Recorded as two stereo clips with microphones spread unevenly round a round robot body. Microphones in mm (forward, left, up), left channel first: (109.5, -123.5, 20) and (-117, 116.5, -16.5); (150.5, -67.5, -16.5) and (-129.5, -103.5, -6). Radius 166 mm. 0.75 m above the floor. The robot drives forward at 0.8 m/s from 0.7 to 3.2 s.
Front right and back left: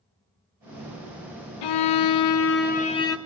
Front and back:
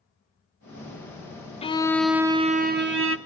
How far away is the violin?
About 1.1 m.